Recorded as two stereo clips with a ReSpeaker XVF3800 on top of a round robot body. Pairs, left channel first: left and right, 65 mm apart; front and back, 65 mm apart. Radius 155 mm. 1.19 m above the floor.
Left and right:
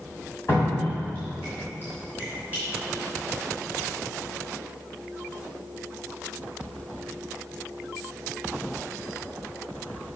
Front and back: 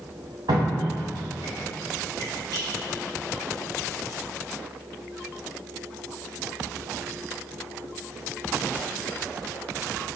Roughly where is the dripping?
Behind left.